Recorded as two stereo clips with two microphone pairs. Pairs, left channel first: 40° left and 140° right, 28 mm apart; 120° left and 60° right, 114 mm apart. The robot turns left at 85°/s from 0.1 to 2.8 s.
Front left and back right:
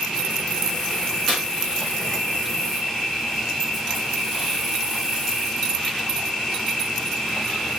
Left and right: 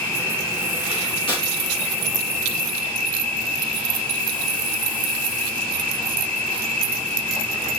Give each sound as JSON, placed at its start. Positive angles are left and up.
{"t": 0.0, "sound": "an insect", "azimuth_deg": 180, "distance_m": 1.8}
{"t": 1.3, "sound": "tearing paper", "azimuth_deg": 120, "distance_m": 1.1}